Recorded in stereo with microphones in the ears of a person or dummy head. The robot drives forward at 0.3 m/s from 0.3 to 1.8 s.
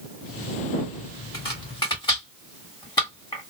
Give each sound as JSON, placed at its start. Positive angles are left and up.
{"t": 1.3, "sound": "chopping", "side_deg": 25, "distance_m": 1.6}